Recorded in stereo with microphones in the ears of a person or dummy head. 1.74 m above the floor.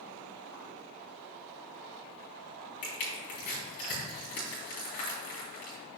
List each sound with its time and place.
2.8 s crushing: 60° left (ahead or behind), 3 m